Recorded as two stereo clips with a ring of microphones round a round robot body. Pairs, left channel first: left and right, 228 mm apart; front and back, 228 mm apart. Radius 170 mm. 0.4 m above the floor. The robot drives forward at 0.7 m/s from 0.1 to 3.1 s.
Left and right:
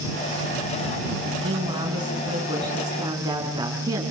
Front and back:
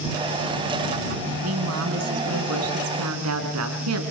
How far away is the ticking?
No ticking in this recording.